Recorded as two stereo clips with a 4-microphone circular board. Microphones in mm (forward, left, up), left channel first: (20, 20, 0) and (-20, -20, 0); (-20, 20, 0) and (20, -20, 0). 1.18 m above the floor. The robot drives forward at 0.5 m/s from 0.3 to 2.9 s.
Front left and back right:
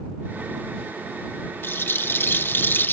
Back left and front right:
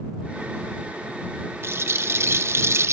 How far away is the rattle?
About 1.1 m.